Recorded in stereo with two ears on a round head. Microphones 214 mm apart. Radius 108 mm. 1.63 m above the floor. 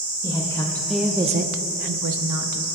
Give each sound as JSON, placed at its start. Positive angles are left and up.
{"t": 0.2, "sound": "a woman speaking", "side_deg": 20, "distance_m": 1.7}